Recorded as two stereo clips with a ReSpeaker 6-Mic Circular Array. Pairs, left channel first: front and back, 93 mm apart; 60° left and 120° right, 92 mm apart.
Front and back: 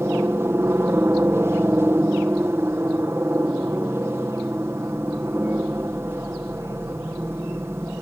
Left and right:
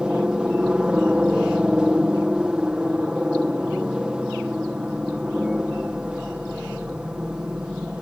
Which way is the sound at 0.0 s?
170° left.